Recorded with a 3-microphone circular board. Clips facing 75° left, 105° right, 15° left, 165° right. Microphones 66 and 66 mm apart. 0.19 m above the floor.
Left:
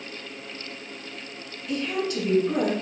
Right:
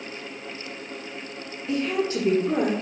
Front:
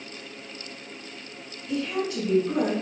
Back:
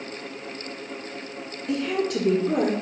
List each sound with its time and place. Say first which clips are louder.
1.7 s a woman speaking: right 3 dB, back 3 dB; 160° right, 3.5 m